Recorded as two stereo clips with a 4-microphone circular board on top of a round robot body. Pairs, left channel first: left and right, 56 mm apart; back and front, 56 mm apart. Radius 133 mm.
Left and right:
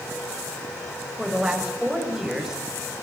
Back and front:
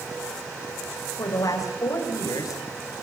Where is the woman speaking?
170° right, 6.5 m.